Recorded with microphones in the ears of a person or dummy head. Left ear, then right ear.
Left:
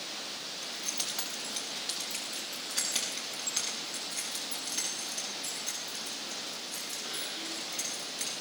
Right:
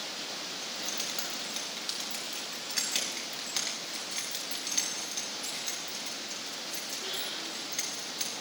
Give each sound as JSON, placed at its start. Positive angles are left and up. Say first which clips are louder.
{"t": 0.6, "sound": "keys jangling", "louder": "left 1 dB", "side_deg": 0, "distance_m": 3.5}